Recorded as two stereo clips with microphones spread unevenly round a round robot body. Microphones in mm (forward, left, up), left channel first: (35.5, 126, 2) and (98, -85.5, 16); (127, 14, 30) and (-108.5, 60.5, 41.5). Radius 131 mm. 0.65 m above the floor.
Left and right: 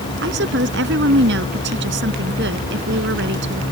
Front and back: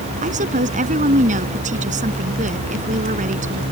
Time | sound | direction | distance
0.2 | a woman speaking | 125° right | ?